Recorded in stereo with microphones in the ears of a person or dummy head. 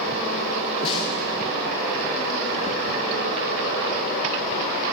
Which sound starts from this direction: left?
A snare drum, at 0.8 s.